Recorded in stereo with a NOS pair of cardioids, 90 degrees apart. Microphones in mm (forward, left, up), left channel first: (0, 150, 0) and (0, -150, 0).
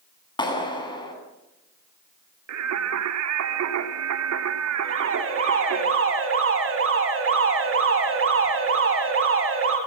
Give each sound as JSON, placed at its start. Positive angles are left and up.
{"t": 0.4, "sound": "a clap", "azimuth_deg": 15, "distance_m": 9.5}
{"t": 2.5, "sound": "singing", "azimuth_deg": -65, "distance_m": 3.5}
{"t": 4.8, "sound": "an alarm", "azimuth_deg": -45, "distance_m": 9.5}